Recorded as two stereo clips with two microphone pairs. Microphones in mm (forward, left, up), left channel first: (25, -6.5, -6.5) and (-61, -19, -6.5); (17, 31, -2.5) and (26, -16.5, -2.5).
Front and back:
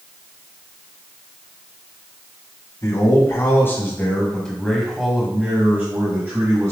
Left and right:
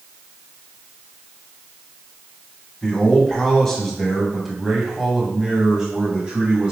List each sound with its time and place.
2.8 s a man speaking: 30° left, 1.5 m; by 6.7 s 140° right, 1.5 m